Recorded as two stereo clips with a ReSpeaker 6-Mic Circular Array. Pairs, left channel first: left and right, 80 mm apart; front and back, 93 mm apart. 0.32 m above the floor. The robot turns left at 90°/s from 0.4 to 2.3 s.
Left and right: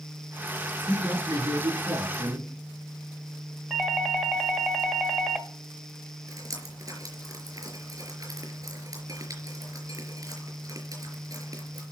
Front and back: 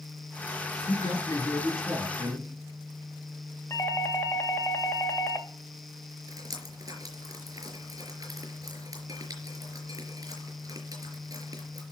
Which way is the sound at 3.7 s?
10° right.